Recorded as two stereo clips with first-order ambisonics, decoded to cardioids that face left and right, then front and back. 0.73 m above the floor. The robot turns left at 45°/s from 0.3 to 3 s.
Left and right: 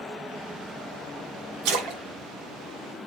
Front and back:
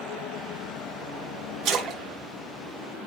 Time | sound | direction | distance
1.6 | a splash | 120° right | 2 m